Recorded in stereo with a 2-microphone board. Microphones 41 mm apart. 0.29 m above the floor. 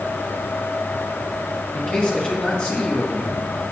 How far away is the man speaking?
About 3.5 m.